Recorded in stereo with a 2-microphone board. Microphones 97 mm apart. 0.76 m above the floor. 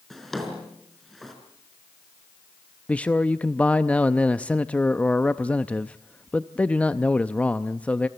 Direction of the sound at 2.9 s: 15° left (ahead or behind).